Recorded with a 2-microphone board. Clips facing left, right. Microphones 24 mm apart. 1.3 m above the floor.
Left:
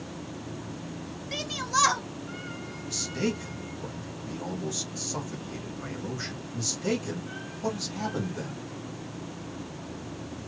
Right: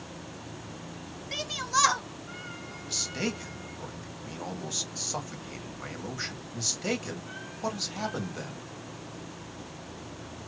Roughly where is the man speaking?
Right.